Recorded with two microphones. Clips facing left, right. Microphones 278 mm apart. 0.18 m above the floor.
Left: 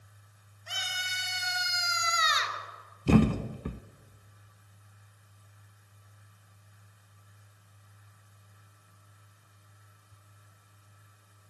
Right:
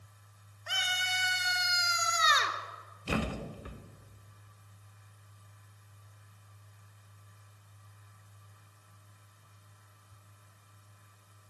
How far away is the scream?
About 3.5 m.